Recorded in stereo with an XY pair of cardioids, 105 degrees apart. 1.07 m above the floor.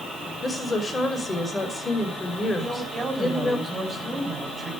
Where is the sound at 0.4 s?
25° left, 5.5 m.